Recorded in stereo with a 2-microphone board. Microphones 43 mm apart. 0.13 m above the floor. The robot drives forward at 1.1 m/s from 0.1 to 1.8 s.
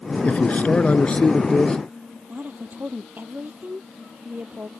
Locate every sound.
0.2 s a man speaking: 35° left (ahead or behind); by 1.8 s 25° left (ahead or behind)
2.3 s a woman speaking: 45° right (ahead or behind)